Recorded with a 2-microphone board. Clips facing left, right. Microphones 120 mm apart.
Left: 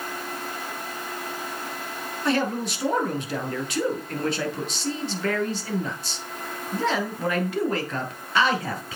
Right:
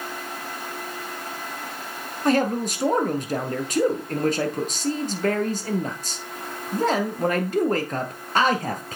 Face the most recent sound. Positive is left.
turn(degrees=-45)  # may be behind; listen again after turning